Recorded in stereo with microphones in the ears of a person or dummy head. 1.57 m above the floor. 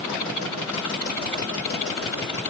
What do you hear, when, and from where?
Only background noise.